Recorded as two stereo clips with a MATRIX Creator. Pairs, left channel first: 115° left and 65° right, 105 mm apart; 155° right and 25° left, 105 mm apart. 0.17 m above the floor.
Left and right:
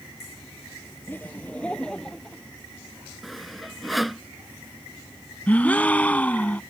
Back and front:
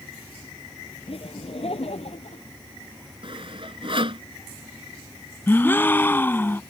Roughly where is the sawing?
Ahead.